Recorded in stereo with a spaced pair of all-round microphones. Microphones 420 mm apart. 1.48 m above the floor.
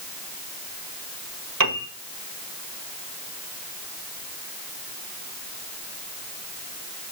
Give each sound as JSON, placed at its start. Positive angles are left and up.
{"t": 1.6, "sound": "a piano", "side_deg": -50, "distance_m": 1.7}